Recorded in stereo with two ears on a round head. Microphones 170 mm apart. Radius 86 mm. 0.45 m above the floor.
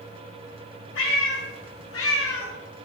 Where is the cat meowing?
70° left (ahead or behind), 2 m; by 2.5 s 80° left, 1.4 m.